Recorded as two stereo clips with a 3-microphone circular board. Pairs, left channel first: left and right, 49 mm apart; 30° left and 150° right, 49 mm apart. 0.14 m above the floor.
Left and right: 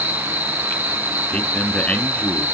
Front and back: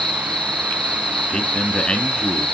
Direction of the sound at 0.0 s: 45° right.